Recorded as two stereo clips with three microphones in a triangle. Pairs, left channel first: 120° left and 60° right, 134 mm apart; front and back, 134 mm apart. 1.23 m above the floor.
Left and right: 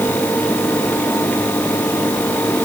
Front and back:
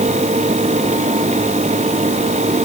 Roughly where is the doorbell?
No doorbell in this recording.